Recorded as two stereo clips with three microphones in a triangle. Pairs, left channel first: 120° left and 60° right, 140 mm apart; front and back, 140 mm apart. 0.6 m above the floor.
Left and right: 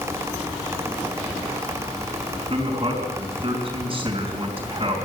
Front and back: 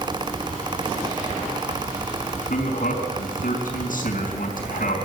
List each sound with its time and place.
2.5 s a man speaking: 5° right, 4 m